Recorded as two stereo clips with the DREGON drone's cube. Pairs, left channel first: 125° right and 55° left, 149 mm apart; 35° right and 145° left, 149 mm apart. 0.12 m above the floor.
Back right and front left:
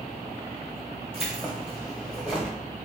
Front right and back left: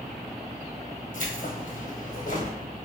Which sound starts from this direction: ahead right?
Keys jangling, at 1.1 s.